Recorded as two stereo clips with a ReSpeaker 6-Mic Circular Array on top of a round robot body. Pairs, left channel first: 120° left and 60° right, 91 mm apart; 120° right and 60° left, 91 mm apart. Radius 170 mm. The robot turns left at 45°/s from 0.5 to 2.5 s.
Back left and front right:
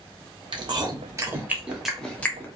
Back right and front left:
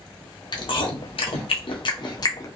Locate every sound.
0.5 s chewing: 85° right, 0.9 m; by 2.5 s 175° right, 0.9 m